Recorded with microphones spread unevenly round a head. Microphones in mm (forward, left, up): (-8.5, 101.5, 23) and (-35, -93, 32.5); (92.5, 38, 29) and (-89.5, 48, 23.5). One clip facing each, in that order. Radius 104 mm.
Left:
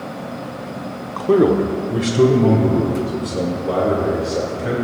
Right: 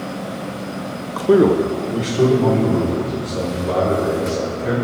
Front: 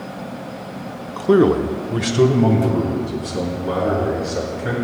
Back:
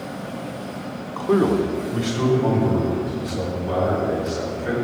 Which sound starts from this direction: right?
A man speaking, at 1.2 s.